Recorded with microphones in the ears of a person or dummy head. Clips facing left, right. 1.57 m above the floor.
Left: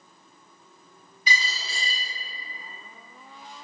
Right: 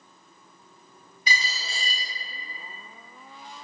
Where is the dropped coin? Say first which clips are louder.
Left 1 dB; 45° right (ahead or behind), 1.7 m.